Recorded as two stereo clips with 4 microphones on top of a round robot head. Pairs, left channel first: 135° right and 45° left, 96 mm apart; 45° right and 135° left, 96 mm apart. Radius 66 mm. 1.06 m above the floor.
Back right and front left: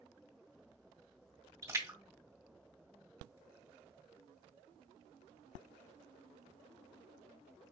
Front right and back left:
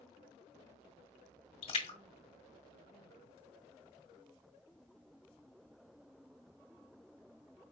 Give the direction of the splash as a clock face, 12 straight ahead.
1 o'clock.